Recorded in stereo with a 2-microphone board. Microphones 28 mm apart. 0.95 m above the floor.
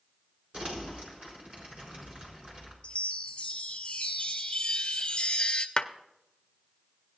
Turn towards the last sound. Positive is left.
turn(degrees=35)  # may be behind; listen again after turning